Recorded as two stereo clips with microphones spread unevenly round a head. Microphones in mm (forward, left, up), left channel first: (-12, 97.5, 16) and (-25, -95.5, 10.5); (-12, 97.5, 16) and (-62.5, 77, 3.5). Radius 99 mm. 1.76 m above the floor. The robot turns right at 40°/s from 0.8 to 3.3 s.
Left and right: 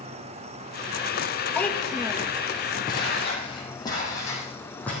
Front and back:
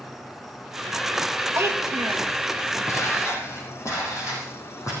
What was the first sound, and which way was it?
An insect, 85° right.